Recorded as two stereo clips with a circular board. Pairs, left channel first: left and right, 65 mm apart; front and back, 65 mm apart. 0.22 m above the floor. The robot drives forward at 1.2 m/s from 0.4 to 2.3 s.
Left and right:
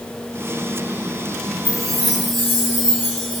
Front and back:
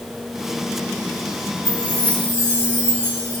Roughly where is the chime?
Behind.